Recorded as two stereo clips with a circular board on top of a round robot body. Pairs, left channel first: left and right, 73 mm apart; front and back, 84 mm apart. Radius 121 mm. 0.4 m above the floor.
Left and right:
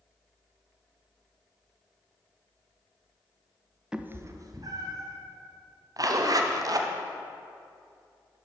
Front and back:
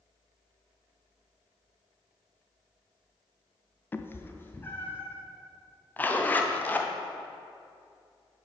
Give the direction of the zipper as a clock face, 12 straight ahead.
2 o'clock.